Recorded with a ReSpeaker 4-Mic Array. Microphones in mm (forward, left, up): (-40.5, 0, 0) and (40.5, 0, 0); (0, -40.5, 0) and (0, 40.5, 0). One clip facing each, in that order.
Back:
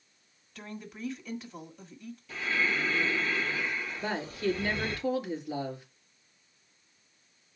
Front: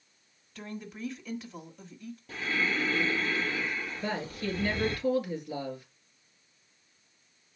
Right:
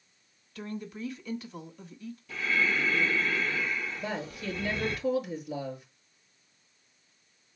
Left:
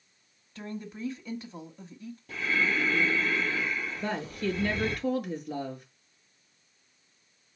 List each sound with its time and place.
0.6 s a woman speaking: 90° left, 1.5 m
2.3 s breathing: 50° left, 6.5 m
4.0 s a woman speaking: 115° left, 3.5 m